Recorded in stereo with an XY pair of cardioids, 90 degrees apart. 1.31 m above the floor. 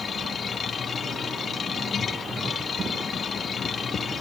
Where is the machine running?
50° left.